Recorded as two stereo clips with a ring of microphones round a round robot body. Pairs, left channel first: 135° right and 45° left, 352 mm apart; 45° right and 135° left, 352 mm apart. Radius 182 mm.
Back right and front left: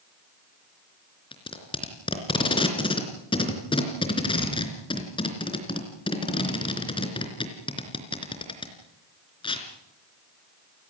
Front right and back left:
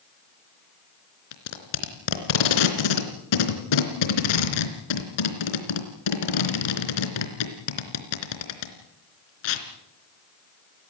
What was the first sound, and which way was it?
Tape being pulled, 60° right.